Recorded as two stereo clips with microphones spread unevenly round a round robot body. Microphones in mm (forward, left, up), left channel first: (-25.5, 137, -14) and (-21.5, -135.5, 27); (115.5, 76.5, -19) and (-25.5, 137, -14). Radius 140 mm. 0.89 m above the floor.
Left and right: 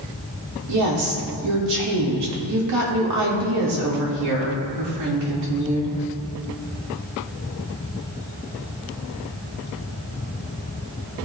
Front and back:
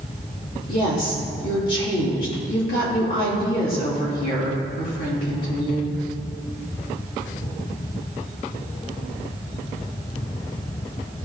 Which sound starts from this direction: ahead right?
A woman speaking, at 0.7 s.